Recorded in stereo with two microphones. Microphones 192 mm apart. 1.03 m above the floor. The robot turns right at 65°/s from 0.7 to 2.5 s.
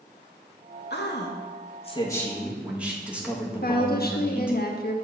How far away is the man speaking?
About 1.5 m.